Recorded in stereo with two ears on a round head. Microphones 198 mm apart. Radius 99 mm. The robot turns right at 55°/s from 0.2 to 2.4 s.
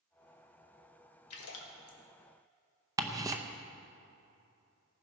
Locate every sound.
1.3 s a splash: 80° left, 1.6 m; by 2.0 s 45° left (ahead or behind), 1.6 m
3.0 s ticking: 15° right (ahead or behind), 0.7 m